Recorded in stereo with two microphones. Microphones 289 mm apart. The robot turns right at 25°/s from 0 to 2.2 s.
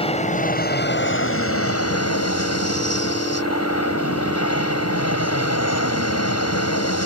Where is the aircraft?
20° left; by 7.1 s 75° left.